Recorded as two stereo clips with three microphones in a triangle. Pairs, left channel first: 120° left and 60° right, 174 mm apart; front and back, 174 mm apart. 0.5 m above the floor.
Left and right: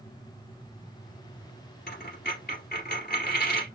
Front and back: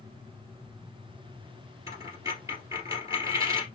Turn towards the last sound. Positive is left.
turn(degrees=110)